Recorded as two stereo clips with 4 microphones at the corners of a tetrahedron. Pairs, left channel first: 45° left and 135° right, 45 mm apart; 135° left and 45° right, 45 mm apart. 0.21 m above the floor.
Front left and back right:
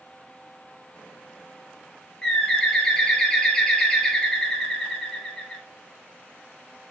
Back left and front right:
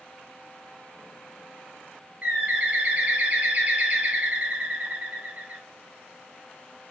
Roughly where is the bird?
Ahead.